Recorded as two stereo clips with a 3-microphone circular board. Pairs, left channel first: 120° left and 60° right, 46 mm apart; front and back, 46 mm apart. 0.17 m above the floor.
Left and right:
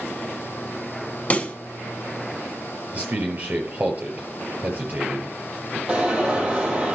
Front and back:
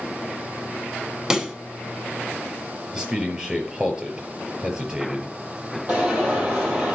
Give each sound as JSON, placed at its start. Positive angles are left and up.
{"t": 1.3, "sound": "a pop", "azimuth_deg": 115, "distance_m": 0.8}
{"t": 2.9, "sound": "a man speaking", "azimuth_deg": -110, "distance_m": 4.5}
{"t": 5.9, "sound": "an alarm", "azimuth_deg": -125, "distance_m": 3.5}